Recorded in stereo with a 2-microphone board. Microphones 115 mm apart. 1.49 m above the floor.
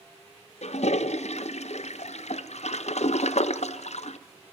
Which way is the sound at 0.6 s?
70° left (ahead or behind).